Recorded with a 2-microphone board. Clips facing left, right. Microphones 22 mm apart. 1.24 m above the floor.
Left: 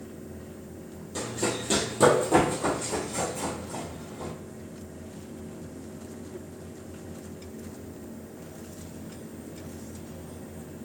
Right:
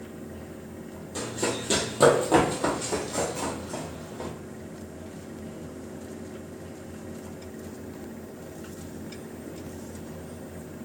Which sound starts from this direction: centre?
Running footsteps, at 1.1 s.